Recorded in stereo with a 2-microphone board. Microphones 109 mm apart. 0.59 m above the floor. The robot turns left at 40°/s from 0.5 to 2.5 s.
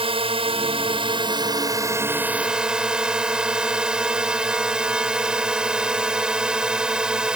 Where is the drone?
90° right; by 7.4 s 170° right.